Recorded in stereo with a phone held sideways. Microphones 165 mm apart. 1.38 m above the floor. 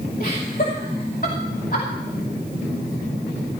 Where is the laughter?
55° left (ahead or behind), 2.5 m.